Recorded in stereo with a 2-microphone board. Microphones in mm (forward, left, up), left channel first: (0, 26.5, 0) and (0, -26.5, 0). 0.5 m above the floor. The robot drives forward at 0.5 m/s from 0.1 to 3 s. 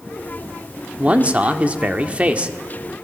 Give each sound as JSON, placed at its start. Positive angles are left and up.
{"t": 1.0, "sound": "a man speaking", "side_deg": -25, "distance_m": 1.4}